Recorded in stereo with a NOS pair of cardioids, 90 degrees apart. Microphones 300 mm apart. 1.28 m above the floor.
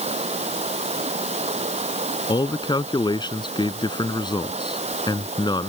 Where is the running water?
20° right.